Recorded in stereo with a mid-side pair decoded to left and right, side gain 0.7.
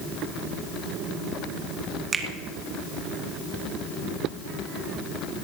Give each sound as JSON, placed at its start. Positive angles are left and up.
{"t": 2.1, "sound": "a finger snap", "azimuth_deg": -25, "distance_m": 1.8}